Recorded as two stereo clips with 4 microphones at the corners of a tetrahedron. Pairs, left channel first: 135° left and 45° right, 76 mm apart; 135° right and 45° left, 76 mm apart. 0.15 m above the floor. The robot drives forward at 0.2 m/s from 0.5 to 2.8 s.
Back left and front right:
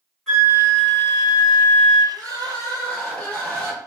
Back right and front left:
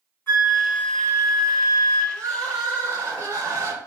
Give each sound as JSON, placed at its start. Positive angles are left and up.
{"t": 0.3, "sound": "a flute", "azimuth_deg": -145, "distance_m": 1.7}
{"t": 2.1, "sound": "crying", "azimuth_deg": 70, "distance_m": 1.4}